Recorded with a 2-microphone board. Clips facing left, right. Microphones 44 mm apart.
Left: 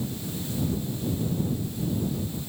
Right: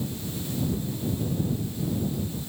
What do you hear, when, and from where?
Only background noise.